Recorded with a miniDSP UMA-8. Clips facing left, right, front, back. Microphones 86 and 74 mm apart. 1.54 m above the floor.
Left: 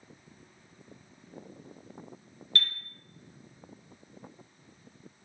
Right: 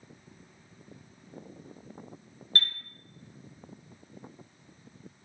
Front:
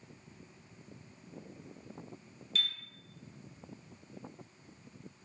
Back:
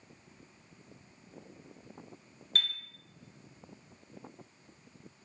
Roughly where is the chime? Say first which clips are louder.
Right 1 dB, back 3 dB; behind right.